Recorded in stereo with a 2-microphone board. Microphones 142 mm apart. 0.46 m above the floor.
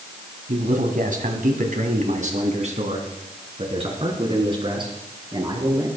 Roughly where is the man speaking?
Right.